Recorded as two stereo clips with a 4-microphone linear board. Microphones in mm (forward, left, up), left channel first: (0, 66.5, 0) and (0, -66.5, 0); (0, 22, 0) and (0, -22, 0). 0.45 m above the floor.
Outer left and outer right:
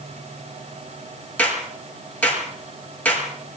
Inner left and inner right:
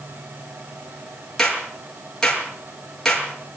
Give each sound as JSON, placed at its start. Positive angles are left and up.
{"t": 1.4, "sound": "a clap", "side_deg": 10, "distance_m": 7.0}